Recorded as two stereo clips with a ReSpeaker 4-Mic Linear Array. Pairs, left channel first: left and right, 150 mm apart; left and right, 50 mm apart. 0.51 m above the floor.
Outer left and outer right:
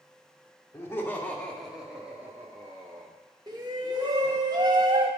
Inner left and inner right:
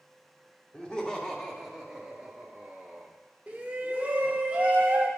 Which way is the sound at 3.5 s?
30° right (ahead or behind).